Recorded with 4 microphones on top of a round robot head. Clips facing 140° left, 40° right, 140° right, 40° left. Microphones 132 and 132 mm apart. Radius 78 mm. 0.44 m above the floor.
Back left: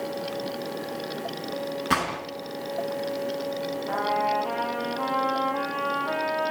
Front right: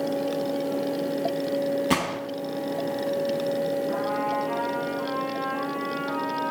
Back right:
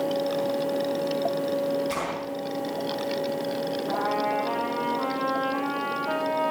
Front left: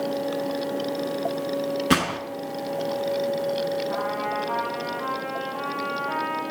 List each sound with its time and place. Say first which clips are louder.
1.9 s a gunshot: front right 2 dB, front left 6 dB; 25° left, 4.5 m
3.9 s a trumpet: back left 1 dB, back right 1 dB; straight behind, 9 m